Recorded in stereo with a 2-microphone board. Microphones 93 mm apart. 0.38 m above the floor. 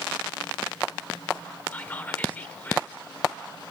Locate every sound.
1.7 s whispering: 20° left (ahead or behind), 0.8 m